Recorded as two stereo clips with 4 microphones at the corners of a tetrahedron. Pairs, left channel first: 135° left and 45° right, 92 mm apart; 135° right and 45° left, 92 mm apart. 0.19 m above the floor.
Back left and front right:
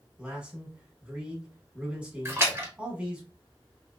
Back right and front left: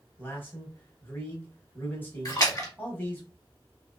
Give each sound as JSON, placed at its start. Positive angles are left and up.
{"t": 0.2, "sound": "a man speaking", "azimuth_deg": -105, "distance_m": 1.1}
{"t": 2.2, "sound": "a splash", "azimuth_deg": -95, "distance_m": 1.0}